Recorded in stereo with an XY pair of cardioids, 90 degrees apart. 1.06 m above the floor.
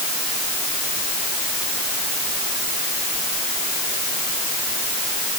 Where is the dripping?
No dripping in this recording.